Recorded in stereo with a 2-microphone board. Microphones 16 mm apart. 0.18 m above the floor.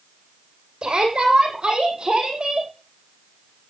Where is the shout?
65° right (ahead or behind), 8 m; by 2.7 s 60° right (ahead or behind), 7 m.